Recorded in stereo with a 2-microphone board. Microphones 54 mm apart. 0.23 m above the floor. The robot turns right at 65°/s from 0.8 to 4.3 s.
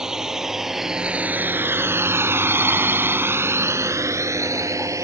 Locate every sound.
0.0 s a drone: 10° right (ahead or behind); by 5.0 s 75° right (ahead or behind)